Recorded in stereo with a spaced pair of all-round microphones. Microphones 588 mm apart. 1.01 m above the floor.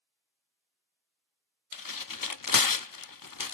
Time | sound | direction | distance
1.7 | tearing paper | 35° left (ahead or behind) | 0.5 m